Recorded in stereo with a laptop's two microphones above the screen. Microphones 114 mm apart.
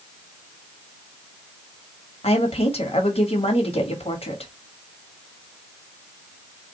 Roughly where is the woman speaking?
Left.